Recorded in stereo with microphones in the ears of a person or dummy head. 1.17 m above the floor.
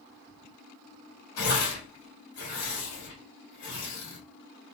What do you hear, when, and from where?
1.4 s tearing paper: 75° left (ahead or behind), 2.5 m